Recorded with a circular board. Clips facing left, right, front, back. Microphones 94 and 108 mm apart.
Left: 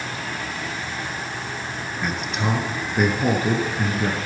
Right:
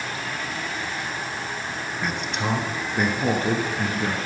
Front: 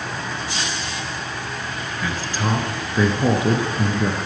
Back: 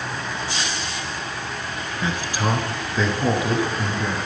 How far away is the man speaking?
About 1.2 m.